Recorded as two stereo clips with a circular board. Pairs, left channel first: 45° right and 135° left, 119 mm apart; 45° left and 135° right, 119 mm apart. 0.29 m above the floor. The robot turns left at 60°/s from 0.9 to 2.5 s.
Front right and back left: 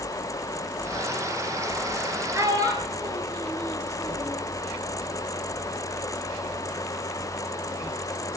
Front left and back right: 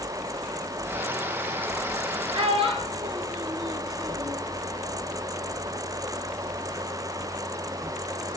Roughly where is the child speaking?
Behind.